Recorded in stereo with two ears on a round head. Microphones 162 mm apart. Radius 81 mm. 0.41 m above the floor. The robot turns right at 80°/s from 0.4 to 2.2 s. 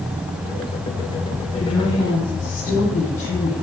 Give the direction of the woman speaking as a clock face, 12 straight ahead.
10 o'clock.